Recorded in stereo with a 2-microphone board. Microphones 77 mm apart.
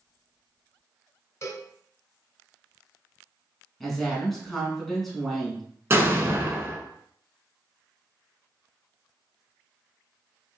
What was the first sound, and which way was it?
A cowbell, 35° left (ahead or behind).